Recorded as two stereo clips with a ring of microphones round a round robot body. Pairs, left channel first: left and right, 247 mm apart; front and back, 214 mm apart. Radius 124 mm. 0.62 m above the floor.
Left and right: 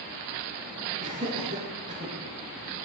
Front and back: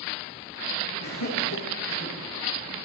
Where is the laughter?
25° right, 7.5 m.